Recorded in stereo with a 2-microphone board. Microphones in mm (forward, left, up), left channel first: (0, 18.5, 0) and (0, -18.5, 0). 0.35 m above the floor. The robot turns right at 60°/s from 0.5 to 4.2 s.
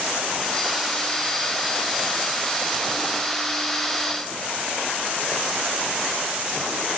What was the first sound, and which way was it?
Only background noise.